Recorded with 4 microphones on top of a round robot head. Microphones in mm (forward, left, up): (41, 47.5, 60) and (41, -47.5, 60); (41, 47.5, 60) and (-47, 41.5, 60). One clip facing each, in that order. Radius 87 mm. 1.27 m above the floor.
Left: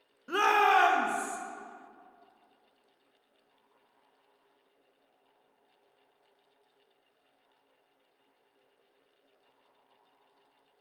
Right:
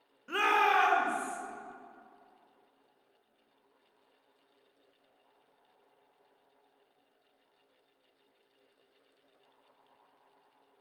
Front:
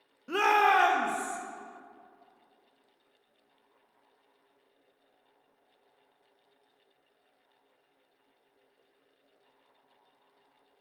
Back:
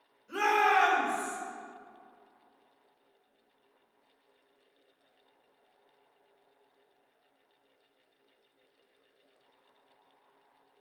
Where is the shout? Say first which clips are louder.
Left 3 dB, front 2 dB; 15° left, 1.0 m; by 1.4 s 65° left, 1.8 m.